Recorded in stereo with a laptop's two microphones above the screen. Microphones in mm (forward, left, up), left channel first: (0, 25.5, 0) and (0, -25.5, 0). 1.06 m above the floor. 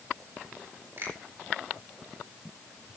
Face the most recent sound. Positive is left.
turn(degrees=-50)  # may be behind; listen again after turning